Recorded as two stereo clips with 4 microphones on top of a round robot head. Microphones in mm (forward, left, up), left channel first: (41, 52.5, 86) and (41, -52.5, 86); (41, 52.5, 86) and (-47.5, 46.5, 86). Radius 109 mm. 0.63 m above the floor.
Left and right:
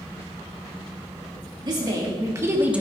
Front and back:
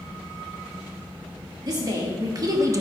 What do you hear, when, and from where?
1.6 s a woman speaking: 135° right, 2.5 m; by 2.8 s 165° right, 1.1 m